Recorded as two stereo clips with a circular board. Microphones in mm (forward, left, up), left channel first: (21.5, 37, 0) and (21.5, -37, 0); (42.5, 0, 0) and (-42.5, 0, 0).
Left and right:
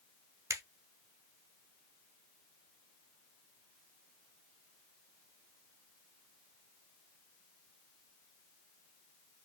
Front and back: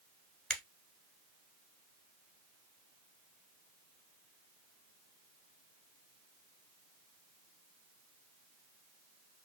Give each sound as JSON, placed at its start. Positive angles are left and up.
{"t": 0.5, "sound": "a finger snap", "azimuth_deg": -80, "distance_m": 1.0}